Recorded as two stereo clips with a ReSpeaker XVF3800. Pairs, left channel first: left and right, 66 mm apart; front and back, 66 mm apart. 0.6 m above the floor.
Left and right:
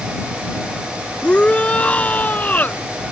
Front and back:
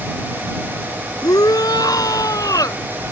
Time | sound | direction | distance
1.2 | a shout | 15° left | ?